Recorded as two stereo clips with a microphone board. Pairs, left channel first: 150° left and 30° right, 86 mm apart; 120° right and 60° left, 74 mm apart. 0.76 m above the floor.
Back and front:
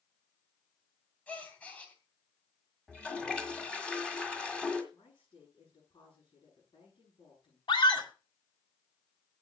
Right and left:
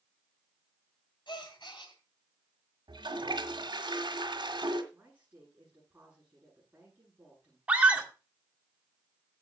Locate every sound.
1.3 s a gasp: 135° right, 2.5 m
2.9 s a toilet flushing: 70° left, 1.7 m
4.9 s a woman speaking: 130° left, 8 m
7.7 s a scream: 130° left, 2 m